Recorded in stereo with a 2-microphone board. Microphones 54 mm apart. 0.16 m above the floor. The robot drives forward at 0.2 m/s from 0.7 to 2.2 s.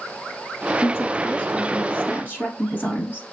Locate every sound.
0.8 s a woman speaking: 35° left (ahead or behind), 1.5 m